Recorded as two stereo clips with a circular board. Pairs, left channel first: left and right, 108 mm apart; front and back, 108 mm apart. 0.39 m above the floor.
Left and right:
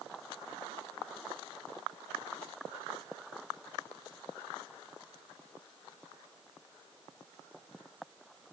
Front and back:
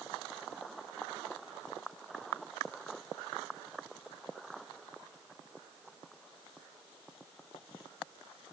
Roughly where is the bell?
No bell in this recording.